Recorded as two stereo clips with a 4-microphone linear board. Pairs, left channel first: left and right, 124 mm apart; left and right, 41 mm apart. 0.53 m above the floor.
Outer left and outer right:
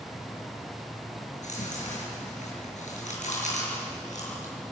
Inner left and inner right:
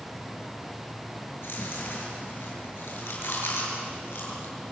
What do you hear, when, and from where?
1.3 s chewing: 70° left (ahead or behind), 7 m